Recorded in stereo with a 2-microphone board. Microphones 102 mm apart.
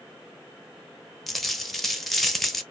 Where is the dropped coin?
Centre (ahead or behind), 0.6 m.